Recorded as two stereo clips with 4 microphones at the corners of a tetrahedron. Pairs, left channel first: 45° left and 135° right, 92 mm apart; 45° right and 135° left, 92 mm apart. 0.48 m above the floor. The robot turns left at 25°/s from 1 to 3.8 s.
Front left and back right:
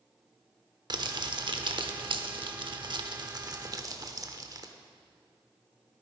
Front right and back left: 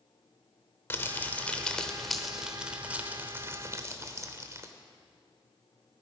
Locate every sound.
0.9 s crumpling: 105° right, 0.8 m; by 4.7 s 175° right, 0.8 m